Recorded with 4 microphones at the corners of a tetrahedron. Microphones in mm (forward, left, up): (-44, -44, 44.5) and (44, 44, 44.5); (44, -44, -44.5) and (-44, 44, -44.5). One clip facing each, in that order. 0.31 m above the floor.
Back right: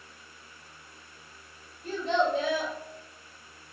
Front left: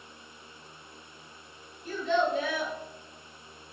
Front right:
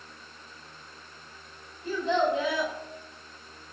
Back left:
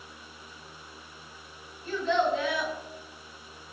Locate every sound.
1.8 s a child speaking: 115° right, 1.5 m